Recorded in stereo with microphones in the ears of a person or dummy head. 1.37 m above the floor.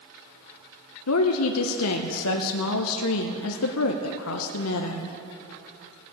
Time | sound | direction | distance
1.1 | a woman speaking | 80° left | 0.8 m